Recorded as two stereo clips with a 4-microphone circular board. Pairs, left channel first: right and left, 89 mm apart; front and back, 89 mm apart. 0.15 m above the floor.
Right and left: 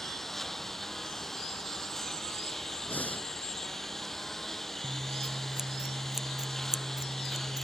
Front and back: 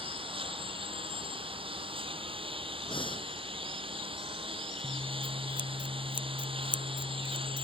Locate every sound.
0.0 s a lawn mower: 175° right
2.9 s breathing: 20° right
4.8 s scissors: 5° left